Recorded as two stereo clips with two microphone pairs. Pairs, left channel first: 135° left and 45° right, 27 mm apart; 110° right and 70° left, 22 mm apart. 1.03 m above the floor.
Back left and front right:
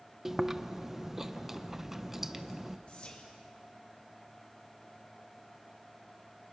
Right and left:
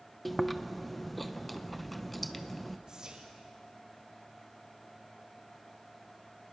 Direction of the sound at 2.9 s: 110° left.